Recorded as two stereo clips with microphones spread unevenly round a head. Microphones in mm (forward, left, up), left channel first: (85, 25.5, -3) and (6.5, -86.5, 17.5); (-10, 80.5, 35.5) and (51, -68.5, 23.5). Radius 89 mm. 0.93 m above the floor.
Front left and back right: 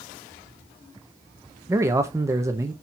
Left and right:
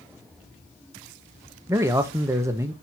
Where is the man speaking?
70° right, 0.8 m.